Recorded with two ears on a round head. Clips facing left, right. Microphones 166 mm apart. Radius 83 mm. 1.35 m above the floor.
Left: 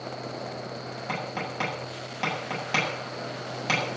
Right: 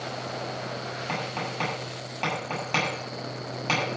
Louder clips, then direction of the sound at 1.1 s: Even; 10° left (ahead or behind).